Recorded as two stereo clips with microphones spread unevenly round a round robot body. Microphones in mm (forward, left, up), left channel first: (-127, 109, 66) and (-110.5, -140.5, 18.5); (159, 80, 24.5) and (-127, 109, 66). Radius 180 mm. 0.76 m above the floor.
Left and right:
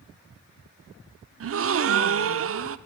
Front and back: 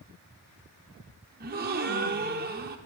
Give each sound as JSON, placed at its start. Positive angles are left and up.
{"t": 1.4, "sound": "a gasp", "azimuth_deg": -120, "distance_m": 0.8}